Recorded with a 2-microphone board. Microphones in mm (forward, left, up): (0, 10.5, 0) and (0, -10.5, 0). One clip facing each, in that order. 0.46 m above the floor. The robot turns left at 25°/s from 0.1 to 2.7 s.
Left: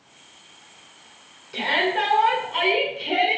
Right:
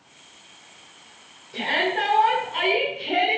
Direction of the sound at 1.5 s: 30° left (ahead or behind).